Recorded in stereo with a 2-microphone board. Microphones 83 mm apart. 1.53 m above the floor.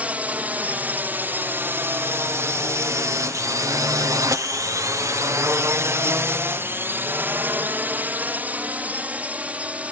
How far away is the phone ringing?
I don't hear a phone ringing.